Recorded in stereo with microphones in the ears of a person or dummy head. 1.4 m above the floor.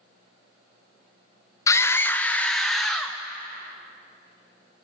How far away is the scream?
About 1.0 m.